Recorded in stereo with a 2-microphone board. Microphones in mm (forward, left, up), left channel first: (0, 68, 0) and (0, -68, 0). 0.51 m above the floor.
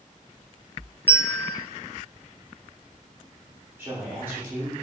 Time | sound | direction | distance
1.1 | a bell | 10° right (ahead or behind) | 0.6 m
3.8 | a woman speaking | 15° right (ahead or behind) | 0.8 m